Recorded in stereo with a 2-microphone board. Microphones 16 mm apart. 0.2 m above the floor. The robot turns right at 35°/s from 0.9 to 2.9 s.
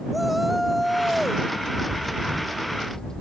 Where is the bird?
5° right; by 3.2 s 35° left.